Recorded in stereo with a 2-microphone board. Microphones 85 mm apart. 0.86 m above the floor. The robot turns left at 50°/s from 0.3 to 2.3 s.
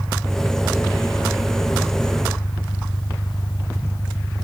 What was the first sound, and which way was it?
An engine running, straight behind.